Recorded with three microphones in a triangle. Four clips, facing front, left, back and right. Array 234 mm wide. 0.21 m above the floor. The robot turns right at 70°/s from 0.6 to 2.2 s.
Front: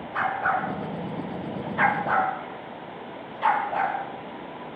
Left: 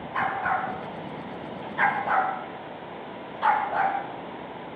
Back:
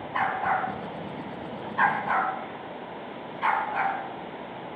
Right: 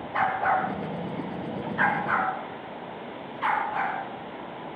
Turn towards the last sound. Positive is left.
turn(degrees=35)